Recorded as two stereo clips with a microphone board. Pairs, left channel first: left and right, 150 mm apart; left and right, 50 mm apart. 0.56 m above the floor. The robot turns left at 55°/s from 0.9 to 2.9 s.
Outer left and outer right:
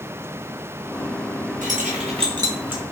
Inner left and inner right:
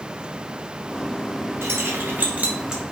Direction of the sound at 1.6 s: 60° right (ahead or behind).